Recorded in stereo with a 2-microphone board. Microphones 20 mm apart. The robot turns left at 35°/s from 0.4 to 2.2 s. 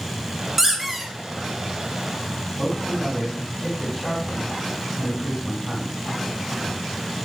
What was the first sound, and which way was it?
A squeak, 15° right (ahead or behind).